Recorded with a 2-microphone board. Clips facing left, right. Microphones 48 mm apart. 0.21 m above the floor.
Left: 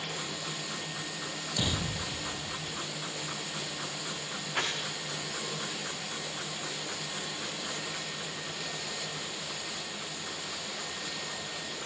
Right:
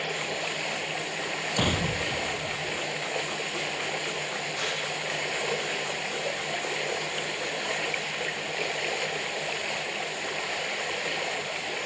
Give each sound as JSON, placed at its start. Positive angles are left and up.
{"t": 0.0, "sound": "running water", "side_deg": -75, "distance_m": 1.4}
{"t": 1.6, "sound": "an explosion", "side_deg": -50, "distance_m": 1.6}
{"t": 4.5, "sound": "crumpling", "side_deg": 75, "distance_m": 9.5}